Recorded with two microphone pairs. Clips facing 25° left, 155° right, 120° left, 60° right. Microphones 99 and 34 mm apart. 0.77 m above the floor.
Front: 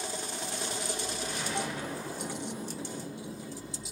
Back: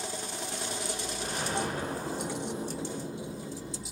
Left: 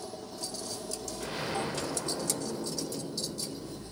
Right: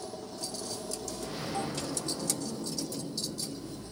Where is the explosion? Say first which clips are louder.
Back 4 dB, left 2 dB; 160° left, 2 m.